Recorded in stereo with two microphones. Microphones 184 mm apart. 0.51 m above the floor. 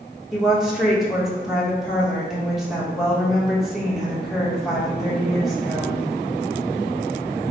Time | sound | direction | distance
0.3 | a woman speaking | centre (ahead or behind) | 1.1 m